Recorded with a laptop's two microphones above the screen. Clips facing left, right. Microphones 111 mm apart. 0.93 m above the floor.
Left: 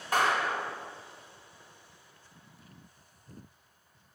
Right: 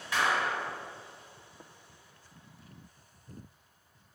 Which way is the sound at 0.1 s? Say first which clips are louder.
Left 2 dB; 45° left (ahead or behind).